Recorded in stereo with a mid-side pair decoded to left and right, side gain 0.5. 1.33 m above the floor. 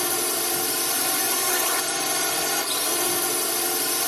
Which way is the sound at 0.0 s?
Straight ahead.